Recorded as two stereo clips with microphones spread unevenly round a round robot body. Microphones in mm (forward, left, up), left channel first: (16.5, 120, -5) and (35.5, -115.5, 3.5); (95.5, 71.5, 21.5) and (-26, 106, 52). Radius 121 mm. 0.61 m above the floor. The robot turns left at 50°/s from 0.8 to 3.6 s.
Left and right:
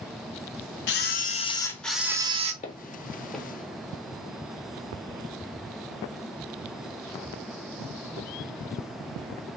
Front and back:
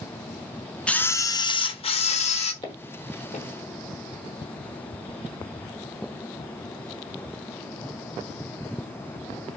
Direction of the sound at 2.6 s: 40° left.